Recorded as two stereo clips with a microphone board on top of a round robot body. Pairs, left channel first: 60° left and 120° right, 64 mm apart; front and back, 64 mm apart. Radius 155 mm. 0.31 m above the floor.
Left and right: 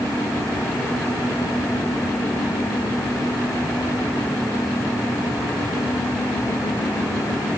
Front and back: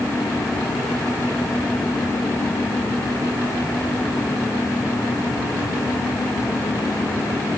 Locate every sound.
Only background noise.